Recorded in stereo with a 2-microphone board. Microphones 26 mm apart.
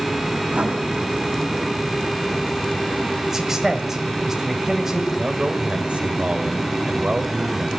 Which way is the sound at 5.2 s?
45° right (ahead or behind).